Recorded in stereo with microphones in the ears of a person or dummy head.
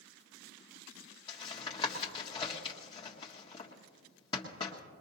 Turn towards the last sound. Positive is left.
turn(degrees=30)  # may be behind; listen again after turning